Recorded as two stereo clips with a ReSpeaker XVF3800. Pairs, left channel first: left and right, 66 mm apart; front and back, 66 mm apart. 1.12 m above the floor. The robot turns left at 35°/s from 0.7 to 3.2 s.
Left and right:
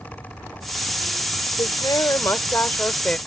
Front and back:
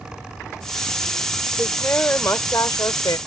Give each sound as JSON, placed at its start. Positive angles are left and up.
{"t": 1.6, "sound": "a woman speaking", "azimuth_deg": 70}